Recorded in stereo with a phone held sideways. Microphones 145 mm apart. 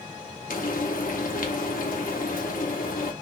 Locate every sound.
0.5 s frying: 80° left, 0.6 m